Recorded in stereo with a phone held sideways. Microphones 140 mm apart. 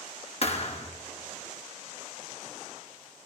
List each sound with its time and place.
0.4 s a thud: 50° left (ahead or behind), 1.3 m